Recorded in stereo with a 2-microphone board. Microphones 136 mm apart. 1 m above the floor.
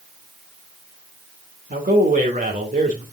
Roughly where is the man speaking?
Right.